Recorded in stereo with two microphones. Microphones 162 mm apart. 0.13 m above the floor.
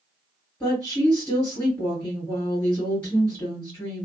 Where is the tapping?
No tapping in this recording.